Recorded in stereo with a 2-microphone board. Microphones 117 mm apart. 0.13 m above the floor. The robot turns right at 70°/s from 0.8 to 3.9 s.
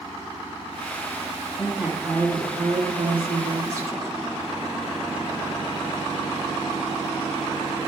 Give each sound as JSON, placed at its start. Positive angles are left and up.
{"t": 1.6, "sound": "a woman speaking", "azimuth_deg": 175, "distance_m": 3.5}